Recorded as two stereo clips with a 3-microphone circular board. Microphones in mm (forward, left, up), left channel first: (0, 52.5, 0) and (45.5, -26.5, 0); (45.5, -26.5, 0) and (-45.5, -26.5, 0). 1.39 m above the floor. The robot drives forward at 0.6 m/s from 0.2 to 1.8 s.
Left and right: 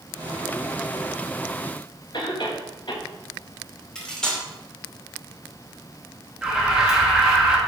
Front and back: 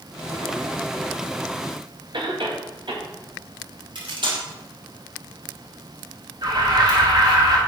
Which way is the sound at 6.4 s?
145° right.